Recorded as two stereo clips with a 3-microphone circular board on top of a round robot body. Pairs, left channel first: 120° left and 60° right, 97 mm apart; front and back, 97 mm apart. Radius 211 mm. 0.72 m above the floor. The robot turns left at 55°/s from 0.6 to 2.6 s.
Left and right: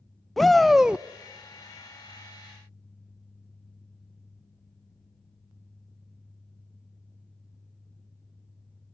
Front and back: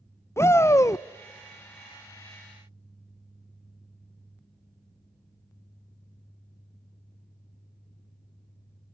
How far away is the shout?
About 0.5 m.